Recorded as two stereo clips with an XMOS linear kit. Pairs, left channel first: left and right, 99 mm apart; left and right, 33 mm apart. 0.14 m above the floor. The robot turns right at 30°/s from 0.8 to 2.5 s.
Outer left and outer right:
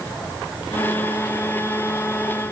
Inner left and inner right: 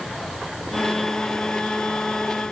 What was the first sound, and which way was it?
Only background noise.